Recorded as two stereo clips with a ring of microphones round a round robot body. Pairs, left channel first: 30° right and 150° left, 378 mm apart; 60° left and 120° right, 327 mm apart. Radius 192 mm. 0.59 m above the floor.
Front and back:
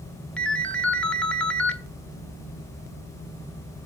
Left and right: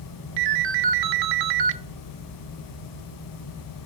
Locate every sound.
0.4 s a ringtone: 115° right, 1.1 m